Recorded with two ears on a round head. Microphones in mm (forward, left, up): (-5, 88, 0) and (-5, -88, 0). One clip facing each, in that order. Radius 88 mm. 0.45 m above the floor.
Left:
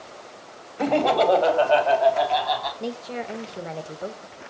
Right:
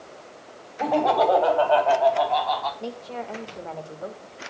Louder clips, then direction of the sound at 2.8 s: Left 2 dB; 20° left (ahead or behind).